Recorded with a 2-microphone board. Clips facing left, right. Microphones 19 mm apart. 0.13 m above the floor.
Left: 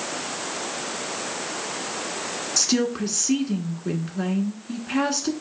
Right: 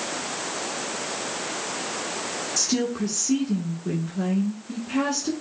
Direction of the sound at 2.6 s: 30° left (ahead or behind).